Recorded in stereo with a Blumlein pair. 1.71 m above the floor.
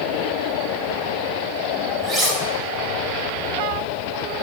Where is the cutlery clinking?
30° right, 6 m.